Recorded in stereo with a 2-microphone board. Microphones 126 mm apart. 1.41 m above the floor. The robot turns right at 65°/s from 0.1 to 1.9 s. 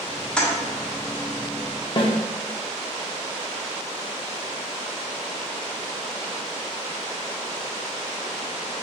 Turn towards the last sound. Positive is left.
turn(degrees=40)  # may be behind; listen again after turning